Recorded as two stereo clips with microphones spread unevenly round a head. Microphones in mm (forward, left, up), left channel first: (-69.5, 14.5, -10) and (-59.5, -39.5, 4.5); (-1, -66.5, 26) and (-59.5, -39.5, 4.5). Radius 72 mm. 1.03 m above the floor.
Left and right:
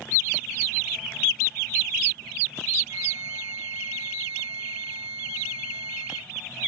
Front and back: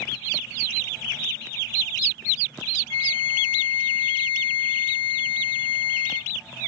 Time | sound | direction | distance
2.9 | a flute | straight ahead | ?